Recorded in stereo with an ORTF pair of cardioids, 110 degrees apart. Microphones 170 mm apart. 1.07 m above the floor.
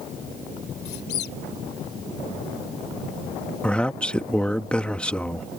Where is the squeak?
65° left.